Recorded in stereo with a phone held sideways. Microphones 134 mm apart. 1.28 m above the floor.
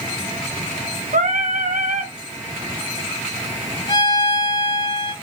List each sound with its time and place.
1.1 s singing: 75° right (ahead or behind), 0.9 m
3.9 s a violin: 40° left (ahead or behind), 2.5 m